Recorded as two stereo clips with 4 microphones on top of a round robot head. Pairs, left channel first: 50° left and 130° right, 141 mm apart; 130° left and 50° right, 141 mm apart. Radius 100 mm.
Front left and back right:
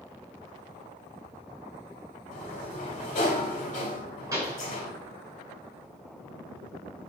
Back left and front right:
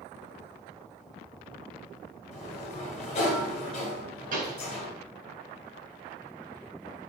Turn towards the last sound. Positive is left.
turn(degrees=-65)